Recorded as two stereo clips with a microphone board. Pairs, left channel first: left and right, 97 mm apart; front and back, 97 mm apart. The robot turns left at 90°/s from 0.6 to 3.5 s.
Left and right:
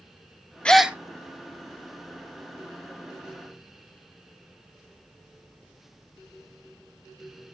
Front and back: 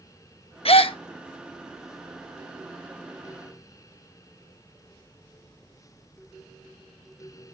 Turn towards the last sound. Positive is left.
turn(degrees=115)